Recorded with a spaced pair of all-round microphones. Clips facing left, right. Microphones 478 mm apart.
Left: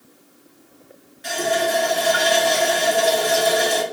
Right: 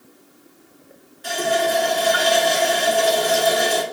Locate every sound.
1.2 s a running tap: 45° left (ahead or behind), 1.2 m